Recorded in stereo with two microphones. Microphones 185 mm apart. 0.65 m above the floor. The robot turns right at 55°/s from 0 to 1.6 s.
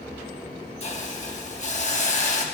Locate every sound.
0.8 s a hiss: 60° left, 1.0 m; by 2.5 s 105° left, 1.0 m